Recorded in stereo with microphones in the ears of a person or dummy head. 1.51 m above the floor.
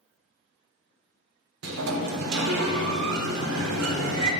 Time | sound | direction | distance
1.6 | a sliding door | 80° right | 0.8 m